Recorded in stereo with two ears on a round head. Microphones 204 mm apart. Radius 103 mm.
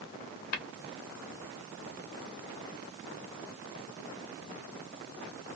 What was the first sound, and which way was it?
Tapping, 80° left.